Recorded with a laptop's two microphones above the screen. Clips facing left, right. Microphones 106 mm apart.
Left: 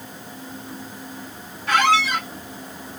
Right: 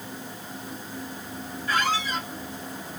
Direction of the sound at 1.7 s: 75° left (ahead or behind).